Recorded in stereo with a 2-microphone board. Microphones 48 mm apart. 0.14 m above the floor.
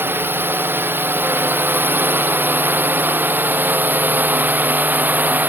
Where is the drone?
45° right (ahead or behind); by 5.5 s 40° right (ahead or behind).